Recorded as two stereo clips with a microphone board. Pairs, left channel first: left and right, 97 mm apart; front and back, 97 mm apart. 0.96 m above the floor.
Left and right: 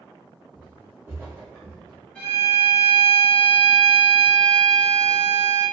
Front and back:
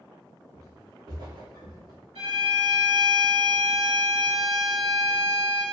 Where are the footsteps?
165° right, 1.1 m; by 2.0 s 140° right, 2.5 m.